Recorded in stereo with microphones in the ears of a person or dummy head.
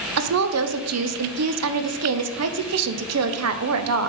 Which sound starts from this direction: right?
A woman speaking, at 0.2 s.